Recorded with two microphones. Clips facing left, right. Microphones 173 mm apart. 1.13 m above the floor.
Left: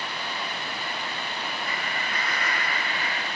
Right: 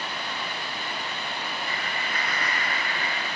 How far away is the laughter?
About 1.3 m.